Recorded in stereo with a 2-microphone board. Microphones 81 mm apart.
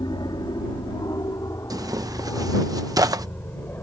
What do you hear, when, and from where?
0.0 s an aircraft: 60° left (ahead or behind); by 3.8 s 25° left (ahead or behind)
1.7 s tearing paper: 50° right (ahead or behind)